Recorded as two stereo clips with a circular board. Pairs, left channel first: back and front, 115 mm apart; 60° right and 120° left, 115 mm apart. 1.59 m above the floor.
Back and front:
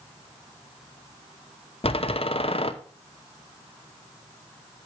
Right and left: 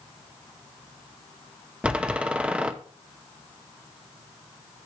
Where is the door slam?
160° right, 0.7 m.